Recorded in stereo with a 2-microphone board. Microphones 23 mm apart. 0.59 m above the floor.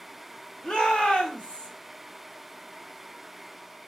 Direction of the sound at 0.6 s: 40° left (ahead or behind).